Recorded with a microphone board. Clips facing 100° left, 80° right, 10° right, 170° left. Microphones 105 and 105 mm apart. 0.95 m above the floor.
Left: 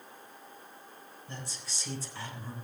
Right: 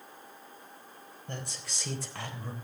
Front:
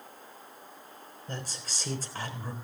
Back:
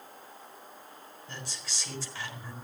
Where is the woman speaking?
55° right, 4 m.